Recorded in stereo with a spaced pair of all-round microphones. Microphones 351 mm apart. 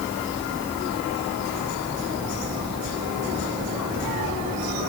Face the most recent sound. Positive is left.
No sound to turn to.